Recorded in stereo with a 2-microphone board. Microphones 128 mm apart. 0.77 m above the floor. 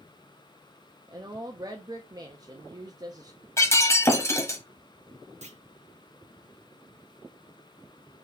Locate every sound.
1.1 s a woman speaking: 30° right (ahead or behind), 0.5 m
3.6 s breaking glass: 20° left (ahead or behind), 0.8 m
5.4 s a clunk: 60° right (ahead or behind), 0.6 m